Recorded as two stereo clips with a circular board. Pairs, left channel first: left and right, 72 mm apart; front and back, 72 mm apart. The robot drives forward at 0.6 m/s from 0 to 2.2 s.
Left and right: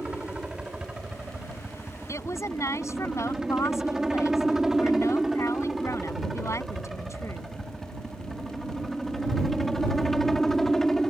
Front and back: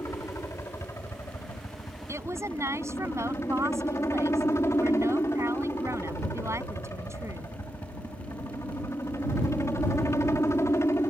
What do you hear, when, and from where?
0.0 s a helicopter: 20° right; by 11.1 s 10° left
2.1 s a woman speaking: 135° left